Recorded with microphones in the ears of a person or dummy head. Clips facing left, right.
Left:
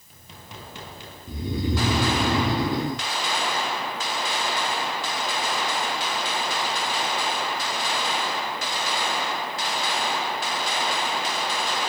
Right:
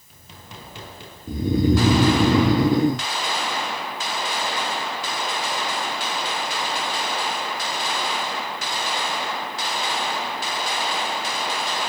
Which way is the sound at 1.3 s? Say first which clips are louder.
Right 8 dB; 45° right (ahead or behind).